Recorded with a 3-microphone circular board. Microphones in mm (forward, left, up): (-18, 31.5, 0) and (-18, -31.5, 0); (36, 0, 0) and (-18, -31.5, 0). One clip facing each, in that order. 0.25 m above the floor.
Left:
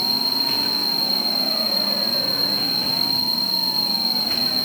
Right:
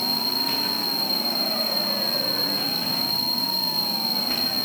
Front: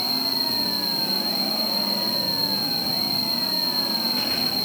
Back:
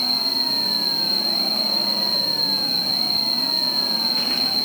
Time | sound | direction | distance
0.0 | an insect | 135° right | 1.0 m